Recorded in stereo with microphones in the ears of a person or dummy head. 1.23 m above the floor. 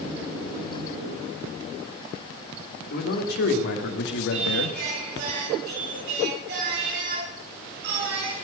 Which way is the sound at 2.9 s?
45° left (ahead or behind).